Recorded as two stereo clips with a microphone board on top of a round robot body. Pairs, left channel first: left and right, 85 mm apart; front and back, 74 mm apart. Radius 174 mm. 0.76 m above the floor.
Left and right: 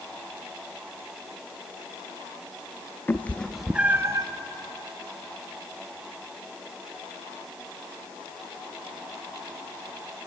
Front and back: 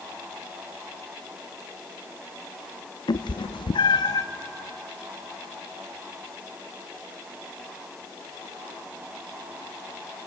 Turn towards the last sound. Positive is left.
turn(degrees=-40)